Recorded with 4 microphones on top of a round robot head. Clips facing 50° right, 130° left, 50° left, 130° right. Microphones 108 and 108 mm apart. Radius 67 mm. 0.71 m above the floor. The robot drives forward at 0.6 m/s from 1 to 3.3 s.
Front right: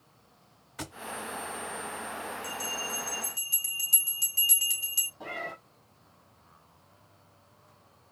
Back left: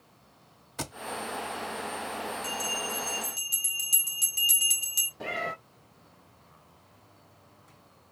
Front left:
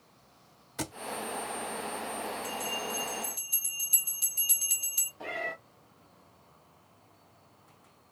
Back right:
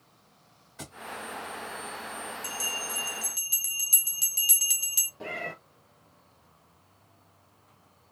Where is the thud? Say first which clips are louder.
Back left 3 dB, front left 8 dB; 70° left, 0.6 m.